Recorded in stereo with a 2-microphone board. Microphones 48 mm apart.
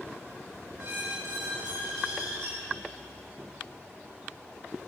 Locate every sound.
0.8 s a squeak: 70° right (ahead or behind), 2.5 m